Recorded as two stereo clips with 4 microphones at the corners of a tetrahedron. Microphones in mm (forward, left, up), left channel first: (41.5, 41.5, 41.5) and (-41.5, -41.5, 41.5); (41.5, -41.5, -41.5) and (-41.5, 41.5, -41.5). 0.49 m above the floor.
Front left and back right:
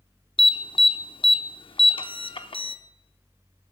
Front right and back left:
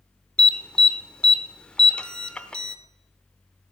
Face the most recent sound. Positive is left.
turn(degrees=35)